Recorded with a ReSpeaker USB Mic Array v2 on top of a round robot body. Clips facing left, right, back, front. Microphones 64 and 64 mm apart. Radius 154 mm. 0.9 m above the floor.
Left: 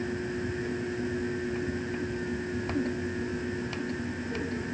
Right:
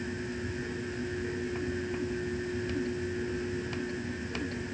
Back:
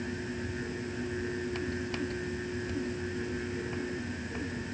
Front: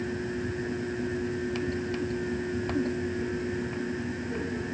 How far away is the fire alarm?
I don't hear a fire alarm.